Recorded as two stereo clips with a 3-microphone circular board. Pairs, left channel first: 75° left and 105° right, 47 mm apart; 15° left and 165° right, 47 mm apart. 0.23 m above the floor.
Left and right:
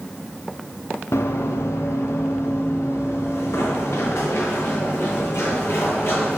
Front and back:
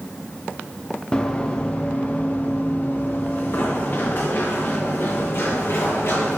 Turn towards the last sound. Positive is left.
turn(degrees=50)